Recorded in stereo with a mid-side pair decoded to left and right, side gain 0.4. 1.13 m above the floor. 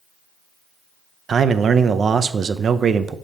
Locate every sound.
1.3 s a man speaking: 50° right, 0.6 m